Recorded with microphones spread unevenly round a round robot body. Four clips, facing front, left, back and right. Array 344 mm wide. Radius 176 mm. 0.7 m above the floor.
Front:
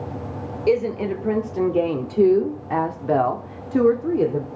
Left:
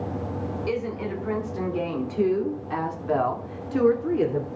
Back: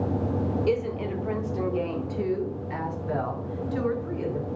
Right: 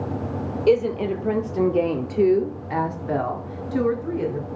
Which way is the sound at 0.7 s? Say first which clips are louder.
Right 12 dB, front 6 dB; 50° right.